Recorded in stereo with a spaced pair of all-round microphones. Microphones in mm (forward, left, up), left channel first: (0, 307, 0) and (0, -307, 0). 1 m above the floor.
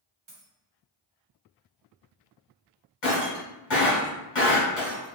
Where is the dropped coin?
50° right (ahead or behind), 1.0 m.